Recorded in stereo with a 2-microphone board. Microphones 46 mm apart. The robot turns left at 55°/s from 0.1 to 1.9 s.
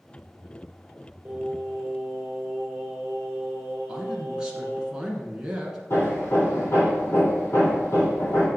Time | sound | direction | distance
1.2 | singing | 45° right | 1.6 m
3.9 | a man speaking | 15° right (ahead or behind) | 1.3 m
5.9 | hammering | 55° left (ahead or behind) | 2.5 m